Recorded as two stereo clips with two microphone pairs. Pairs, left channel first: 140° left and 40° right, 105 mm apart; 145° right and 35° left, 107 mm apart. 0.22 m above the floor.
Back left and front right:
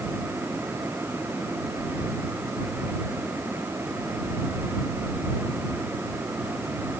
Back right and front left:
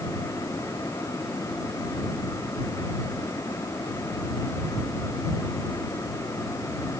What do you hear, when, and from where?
Only background noise.